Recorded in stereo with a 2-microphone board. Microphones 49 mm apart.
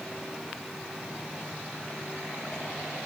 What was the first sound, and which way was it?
Only background noise.